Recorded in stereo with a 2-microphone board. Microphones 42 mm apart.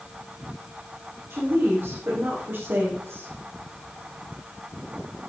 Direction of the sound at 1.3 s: 80° right.